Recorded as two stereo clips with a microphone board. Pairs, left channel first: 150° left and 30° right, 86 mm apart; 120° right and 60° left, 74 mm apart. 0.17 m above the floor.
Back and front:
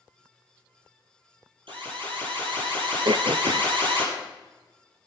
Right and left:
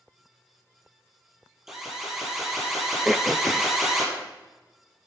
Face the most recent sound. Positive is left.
turn(degrees=-30)